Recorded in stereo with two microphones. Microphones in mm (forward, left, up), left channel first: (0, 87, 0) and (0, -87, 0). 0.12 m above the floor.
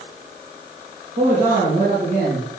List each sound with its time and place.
1.2 s a man speaking: 50° right (ahead or behind), 4.5 m